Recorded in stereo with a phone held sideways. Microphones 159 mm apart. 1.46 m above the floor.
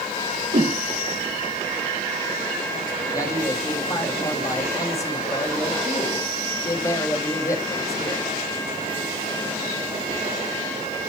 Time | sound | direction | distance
0.5 | a whoosh | 50° right (ahead or behind) | 0.9 m
3.1 | a man speaking | 20° left (ahead or behind) | 2 m